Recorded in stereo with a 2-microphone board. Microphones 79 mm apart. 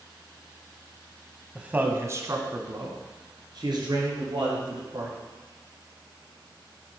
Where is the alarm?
I don't hear an alarm.